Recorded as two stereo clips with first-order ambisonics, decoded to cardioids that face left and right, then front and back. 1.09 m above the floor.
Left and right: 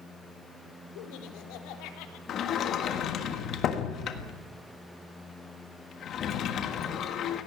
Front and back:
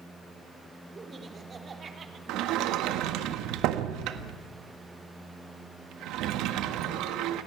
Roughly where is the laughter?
Left.